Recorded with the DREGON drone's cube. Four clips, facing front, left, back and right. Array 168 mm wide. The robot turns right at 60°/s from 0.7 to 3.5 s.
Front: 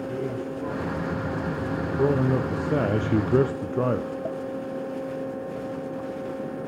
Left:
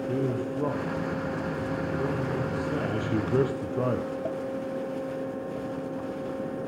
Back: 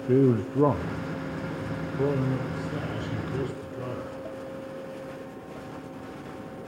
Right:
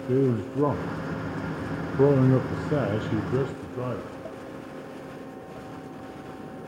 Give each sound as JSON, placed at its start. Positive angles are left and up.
{"t": 0.1, "sound": "a man speaking", "azimuth_deg": -155, "distance_m": 0.9}